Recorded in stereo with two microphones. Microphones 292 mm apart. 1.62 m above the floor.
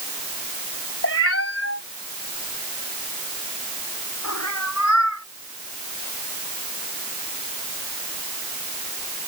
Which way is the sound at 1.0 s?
45° left (ahead or behind).